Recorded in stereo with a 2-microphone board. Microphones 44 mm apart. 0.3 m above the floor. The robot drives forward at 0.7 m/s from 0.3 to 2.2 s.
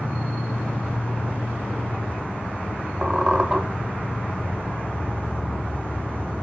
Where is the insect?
50° left (ahead or behind), 3.5 m; by 6.4 s 40° left (ahead or behind), 4 m.